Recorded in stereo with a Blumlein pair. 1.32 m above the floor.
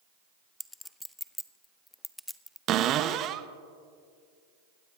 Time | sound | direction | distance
0.6 | a clink | 5° left | 0.6 m
2.7 | a cupboard door | 30° right | 0.7 m